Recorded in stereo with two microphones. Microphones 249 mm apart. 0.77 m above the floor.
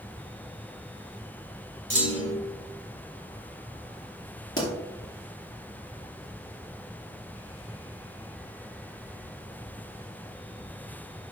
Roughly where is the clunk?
Left.